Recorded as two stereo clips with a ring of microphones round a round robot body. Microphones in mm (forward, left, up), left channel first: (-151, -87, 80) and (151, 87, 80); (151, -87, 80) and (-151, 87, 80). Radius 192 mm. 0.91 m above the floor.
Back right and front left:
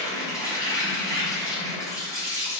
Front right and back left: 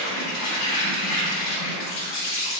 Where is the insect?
70° right, 0.8 m.